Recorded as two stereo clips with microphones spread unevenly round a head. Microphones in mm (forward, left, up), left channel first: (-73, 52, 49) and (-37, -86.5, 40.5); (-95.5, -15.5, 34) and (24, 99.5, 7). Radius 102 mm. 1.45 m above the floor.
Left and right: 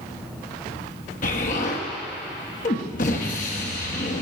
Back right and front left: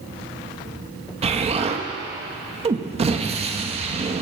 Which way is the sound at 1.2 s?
95° left.